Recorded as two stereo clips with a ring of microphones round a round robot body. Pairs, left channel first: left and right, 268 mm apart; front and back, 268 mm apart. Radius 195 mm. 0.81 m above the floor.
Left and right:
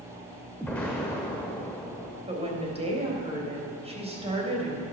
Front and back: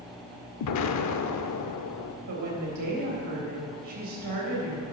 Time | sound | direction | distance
0.6 | an explosion | 5° left | 0.7 m
2.3 | a woman speaking | 160° right | 3.5 m